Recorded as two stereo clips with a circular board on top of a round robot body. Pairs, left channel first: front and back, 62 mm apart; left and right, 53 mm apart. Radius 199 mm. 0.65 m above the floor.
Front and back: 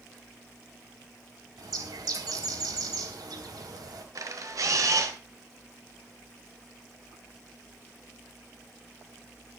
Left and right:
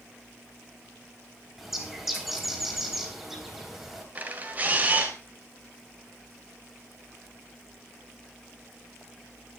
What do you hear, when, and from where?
1.6 s a bird: 175° right, 3.5 m
4.2 s a camera shutter: 150° right, 2.5 m